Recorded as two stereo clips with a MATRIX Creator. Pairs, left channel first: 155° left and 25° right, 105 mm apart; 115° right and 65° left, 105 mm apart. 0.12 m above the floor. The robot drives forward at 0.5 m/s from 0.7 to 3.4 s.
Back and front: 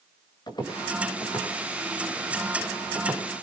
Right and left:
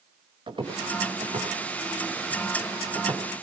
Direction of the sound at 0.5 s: 110° left.